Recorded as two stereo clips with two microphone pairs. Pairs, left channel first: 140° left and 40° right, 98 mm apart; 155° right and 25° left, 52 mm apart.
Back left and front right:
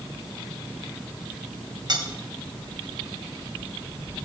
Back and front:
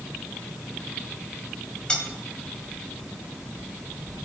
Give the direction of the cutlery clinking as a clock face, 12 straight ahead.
3 o'clock.